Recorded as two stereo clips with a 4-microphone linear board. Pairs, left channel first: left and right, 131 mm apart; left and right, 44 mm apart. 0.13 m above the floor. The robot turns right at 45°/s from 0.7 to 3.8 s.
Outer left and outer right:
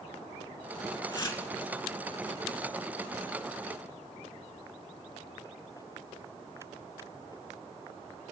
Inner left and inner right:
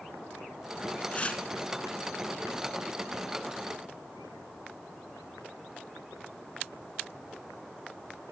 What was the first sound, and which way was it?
Tearing paper, 25° left (ahead or behind).